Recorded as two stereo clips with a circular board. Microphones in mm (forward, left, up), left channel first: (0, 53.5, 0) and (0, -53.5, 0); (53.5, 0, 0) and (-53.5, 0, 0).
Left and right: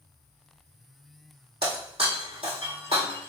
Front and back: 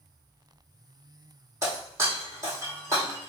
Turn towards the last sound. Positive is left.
turn(degrees=-120)